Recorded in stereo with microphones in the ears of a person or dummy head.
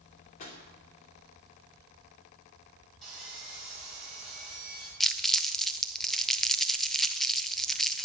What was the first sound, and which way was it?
A pop, 45° left (ahead or behind).